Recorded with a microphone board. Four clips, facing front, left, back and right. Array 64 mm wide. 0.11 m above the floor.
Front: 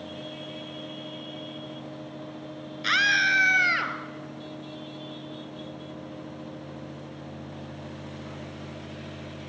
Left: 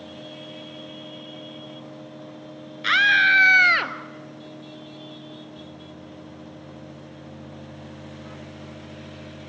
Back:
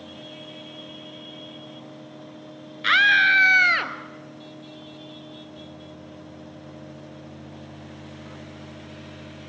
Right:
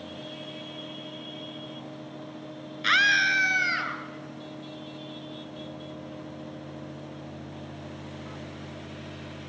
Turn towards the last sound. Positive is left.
turn(degrees=110)